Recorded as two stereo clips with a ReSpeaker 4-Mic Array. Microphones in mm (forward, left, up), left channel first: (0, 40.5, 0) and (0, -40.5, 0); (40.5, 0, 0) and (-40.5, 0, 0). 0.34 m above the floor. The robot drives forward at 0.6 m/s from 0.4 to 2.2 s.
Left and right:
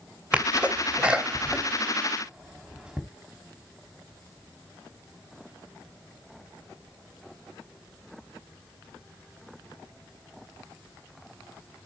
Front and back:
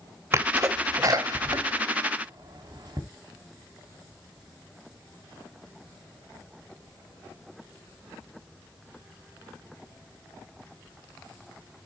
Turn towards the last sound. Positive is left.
turn(degrees=-170)